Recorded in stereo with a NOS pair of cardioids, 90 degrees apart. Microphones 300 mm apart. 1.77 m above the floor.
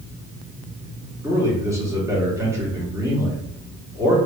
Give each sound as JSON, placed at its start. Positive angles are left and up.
{"t": 1.2, "sound": "a man speaking", "azimuth_deg": -10, "distance_m": 2.0}